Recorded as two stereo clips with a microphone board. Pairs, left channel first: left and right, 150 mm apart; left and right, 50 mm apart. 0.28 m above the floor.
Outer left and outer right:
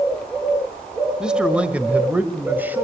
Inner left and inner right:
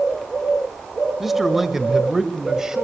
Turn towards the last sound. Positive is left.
turn(degrees=-10)  # may be behind; listen again after turning